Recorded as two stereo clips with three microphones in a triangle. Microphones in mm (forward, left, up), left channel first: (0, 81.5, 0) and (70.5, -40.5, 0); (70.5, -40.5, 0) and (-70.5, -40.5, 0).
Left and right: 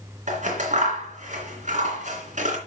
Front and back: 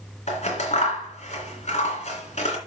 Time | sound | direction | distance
0.3 | scissors | 35° right | 3 m